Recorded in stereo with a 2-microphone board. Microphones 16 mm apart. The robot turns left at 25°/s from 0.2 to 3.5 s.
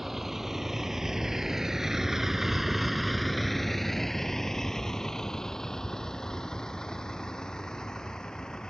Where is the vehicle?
15° right (ahead or behind); by 8.7 s 50° left (ahead or behind).